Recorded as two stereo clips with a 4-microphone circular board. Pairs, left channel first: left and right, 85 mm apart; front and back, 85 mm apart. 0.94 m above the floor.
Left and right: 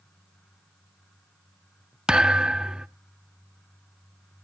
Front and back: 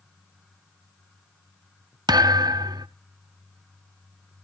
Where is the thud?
170° right, 0.5 m.